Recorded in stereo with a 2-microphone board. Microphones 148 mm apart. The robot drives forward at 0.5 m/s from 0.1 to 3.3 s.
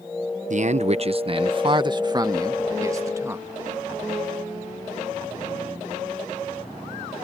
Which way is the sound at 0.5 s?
55° right (ahead or behind).